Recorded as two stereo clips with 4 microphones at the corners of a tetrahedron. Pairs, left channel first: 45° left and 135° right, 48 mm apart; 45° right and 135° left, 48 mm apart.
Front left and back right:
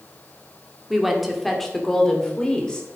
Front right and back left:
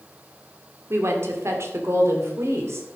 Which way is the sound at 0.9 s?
140° left.